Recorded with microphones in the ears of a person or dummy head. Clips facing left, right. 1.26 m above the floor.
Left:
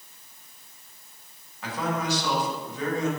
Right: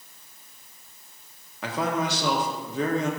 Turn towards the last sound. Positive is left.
turn(degrees=-60)  # may be behind; listen again after turning